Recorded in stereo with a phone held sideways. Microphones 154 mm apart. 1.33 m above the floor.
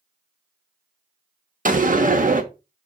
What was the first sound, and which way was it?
A door slam, 60° right (ahead or behind).